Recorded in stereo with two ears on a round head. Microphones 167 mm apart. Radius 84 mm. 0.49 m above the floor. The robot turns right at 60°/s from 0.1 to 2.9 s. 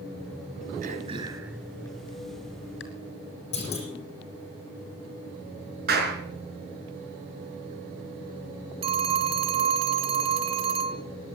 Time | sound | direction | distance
0.8 | throat clearing | 50° right (ahead or behind) | 3 m
3.5 | a clunk | 35° left (ahead or behind) | 8.5 m
5.9 | a clap | 55° right (ahead or behind) | 5.5 m
8.8 | a phone ringing | 30° right (ahead or behind) | 1.0 m